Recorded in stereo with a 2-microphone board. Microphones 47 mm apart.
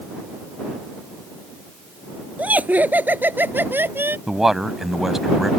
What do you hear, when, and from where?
2.4 s laughter: 30° right (ahead or behind); by 4.2 s 50° right (ahead or behind)
4.3 s a man speaking: 5° right (ahead or behind)